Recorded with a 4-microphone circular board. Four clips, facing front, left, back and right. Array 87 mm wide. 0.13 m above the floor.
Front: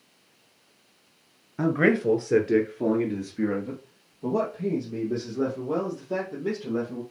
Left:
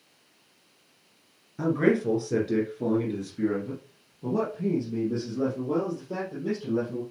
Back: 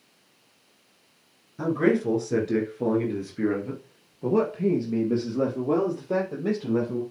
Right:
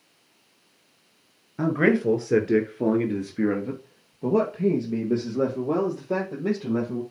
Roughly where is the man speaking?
Ahead right.